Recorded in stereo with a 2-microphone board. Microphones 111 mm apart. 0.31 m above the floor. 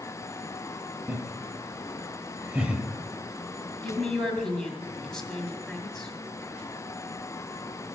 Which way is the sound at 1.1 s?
15° right (ahead or behind).